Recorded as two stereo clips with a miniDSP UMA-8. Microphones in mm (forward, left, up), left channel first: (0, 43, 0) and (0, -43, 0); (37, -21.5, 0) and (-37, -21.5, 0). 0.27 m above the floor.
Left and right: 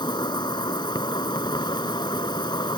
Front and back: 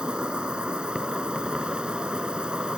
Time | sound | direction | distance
0.0 | an insect | 105° left | ?